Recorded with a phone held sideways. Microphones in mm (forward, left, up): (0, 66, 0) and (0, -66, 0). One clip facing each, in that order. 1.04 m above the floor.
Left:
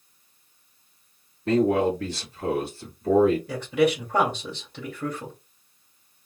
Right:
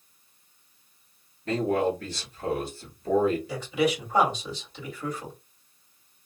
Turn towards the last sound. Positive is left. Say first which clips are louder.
# left 4 dB
turn(degrees=60)  # may be behind; listen again after turning